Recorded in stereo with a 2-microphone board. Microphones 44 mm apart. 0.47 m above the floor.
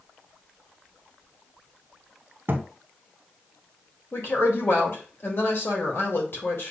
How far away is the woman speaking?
About 1.8 m.